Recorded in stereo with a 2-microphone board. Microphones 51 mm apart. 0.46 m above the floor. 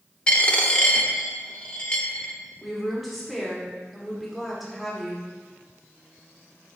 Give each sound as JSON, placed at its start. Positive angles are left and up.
{"t": 0.3, "sound": "a dropped coin", "side_deg": 20, "distance_m": 0.6}
{"t": 2.6, "sound": "a woman speaking", "side_deg": 0, "distance_m": 1.1}